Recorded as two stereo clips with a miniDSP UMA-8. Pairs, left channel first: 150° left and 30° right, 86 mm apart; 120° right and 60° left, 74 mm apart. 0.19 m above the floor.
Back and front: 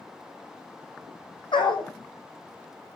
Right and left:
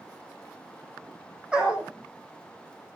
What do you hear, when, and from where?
1.5 s a dog barking: 135° left, 3 m